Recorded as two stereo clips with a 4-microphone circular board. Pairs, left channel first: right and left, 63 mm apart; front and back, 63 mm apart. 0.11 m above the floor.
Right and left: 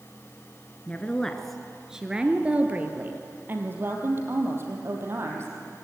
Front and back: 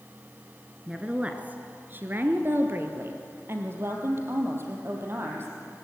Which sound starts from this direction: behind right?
A woman speaking, at 0.9 s.